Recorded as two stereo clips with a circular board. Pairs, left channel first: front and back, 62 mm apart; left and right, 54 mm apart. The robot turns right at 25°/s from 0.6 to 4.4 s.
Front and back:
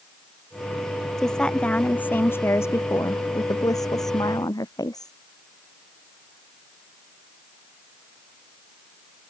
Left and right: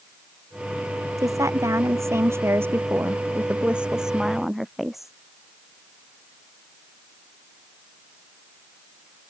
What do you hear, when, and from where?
1.2 s a woman speaking: 85° right; by 5.1 s 5° right